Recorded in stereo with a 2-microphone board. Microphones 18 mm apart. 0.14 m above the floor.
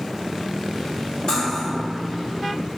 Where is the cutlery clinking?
45° left (ahead or behind), 1.3 m.